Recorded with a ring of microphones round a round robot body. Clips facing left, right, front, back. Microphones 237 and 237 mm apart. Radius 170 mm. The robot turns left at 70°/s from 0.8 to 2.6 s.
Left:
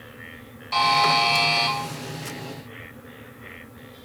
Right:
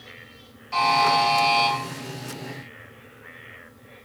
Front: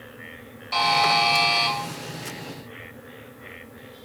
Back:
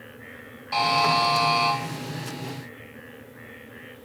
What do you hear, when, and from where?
0.7 s a buzzer: 70° left, 2.5 m; by 1.7 s 5° left, 2.5 m